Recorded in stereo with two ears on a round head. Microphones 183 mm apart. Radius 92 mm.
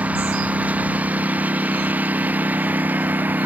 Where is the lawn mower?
5° right (ahead or behind); by 3.5 s 10° right (ahead or behind).